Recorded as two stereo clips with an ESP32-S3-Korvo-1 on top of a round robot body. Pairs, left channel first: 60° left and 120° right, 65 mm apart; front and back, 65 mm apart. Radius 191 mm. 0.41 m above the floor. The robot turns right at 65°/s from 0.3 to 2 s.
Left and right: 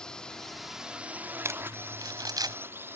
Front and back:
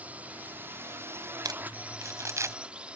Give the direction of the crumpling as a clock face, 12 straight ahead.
6 o'clock.